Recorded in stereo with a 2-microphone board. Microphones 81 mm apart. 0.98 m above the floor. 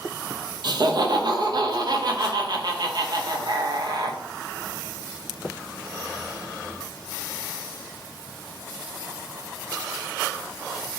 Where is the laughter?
55° right (ahead or behind), 0.5 m.